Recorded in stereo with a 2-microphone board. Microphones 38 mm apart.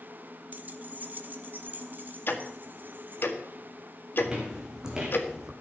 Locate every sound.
0.5 s keys jangling: 45° right (ahead or behind), 0.9 m; by 3.2 s 50° right (ahead or behind), 3.5 m
2.3 s ticking: 65° left (ahead or behind), 1.8 m
4.2 s footsteps: 20° right (ahead or behind), 4 m; by 5.5 s 15° right (ahead or behind), 3 m